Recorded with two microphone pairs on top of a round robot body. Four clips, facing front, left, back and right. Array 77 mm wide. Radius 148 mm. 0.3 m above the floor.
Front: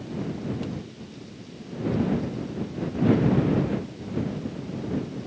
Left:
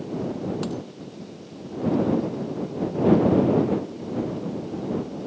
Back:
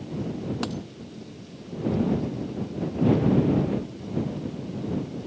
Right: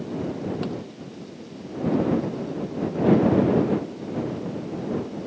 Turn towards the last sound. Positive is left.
turn(degrees=180)